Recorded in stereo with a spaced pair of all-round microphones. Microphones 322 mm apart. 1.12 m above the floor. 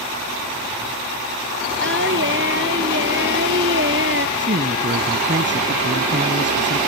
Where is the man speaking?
35° right (ahead or behind).